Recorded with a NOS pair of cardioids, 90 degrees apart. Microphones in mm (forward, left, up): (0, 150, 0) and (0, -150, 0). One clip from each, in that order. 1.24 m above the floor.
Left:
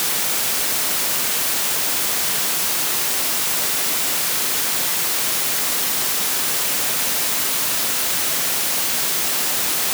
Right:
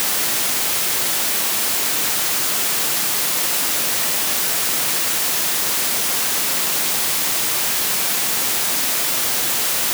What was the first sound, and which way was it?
Only background noise.